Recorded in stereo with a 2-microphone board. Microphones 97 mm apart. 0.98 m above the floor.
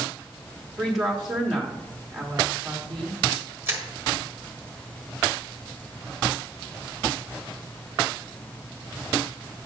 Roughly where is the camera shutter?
Right.